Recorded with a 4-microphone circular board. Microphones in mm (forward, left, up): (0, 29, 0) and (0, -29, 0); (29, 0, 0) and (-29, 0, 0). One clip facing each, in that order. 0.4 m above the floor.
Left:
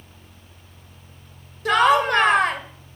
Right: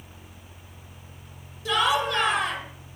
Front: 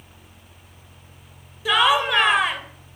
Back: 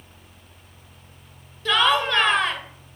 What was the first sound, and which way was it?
Laughter, 80° left.